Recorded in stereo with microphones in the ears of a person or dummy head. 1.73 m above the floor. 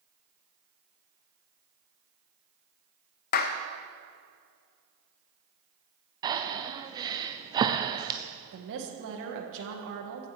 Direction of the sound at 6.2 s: 15° right (ahead or behind).